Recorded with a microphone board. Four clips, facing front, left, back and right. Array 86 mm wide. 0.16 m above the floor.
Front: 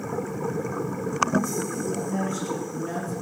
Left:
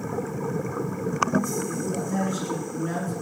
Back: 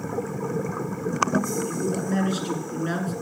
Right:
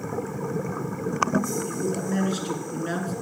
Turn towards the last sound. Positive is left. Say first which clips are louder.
# right 1 dB, back 2 dB
turn(degrees=-150)